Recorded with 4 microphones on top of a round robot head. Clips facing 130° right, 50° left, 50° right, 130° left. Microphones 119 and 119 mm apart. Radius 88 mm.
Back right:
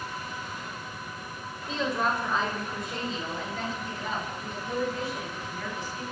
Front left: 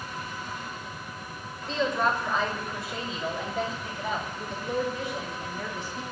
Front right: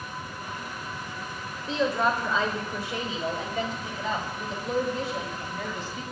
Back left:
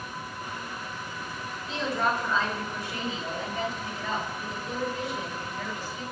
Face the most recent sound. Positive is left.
turn(degrees=-20)